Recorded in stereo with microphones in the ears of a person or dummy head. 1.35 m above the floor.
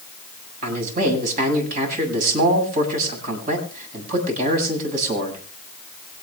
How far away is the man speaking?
About 8 m.